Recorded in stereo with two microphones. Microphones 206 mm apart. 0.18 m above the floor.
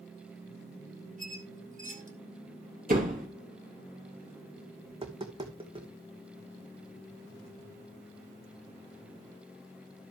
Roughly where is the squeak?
Right.